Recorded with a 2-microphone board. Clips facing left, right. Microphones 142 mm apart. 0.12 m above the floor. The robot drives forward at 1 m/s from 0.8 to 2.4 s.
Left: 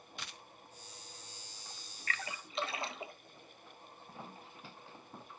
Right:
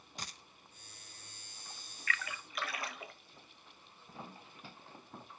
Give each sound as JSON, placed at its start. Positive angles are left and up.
{"t": 0.2, "sound": "a dropped coin", "side_deg": -40, "distance_m": 0.6}
{"t": 2.1, "sound": "a splash", "side_deg": 35, "distance_m": 0.6}